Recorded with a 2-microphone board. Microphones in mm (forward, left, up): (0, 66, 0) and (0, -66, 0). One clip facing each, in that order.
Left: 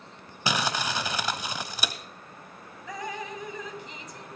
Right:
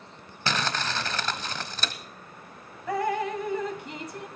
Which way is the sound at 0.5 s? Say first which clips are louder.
Left 1 dB; 15° left (ahead or behind).